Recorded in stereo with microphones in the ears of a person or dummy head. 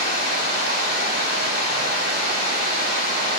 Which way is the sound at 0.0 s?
60° right (ahead or behind).